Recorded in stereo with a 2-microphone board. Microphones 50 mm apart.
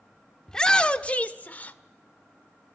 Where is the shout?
10° left (ahead or behind), 0.9 m; by 1.8 s 35° left (ahead or behind), 1.2 m.